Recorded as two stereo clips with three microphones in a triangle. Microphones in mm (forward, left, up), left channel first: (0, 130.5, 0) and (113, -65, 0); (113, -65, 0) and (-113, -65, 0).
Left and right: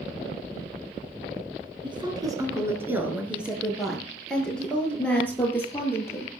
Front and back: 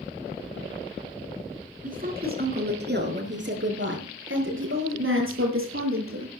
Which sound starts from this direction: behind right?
A woman speaking, at 1.8 s.